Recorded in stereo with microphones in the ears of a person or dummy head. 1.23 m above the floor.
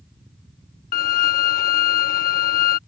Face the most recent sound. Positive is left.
turn(degrees=40)  # may be behind; listen again after turning